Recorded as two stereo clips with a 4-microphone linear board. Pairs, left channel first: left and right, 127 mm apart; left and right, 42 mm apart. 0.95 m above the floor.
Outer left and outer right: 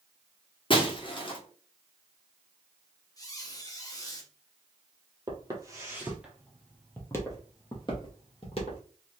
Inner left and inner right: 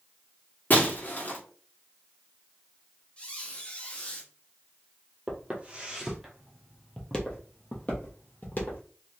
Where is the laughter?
No laughter in this recording.